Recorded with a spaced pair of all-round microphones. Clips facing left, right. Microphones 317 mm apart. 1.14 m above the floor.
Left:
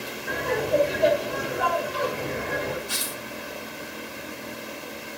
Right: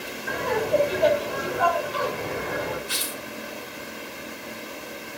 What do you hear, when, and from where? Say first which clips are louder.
0.3 s laughter: right 1 dB; 5° right (ahead or behind), 5 m
2.9 s tearing paper: right 1 dB; 65° right (ahead or behind), 2 m